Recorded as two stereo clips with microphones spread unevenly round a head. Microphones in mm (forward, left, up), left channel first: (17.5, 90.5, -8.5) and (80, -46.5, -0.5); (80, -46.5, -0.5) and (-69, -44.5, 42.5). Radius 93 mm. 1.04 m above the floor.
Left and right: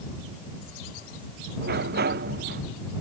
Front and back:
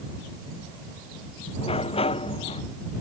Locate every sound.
1.6 s a sliding door: 55° right